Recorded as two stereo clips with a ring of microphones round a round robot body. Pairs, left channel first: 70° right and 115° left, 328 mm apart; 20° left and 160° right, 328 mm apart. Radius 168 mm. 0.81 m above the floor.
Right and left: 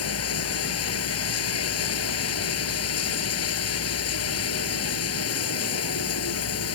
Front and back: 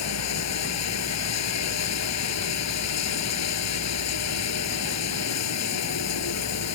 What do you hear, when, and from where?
0.0 s running water: 20° right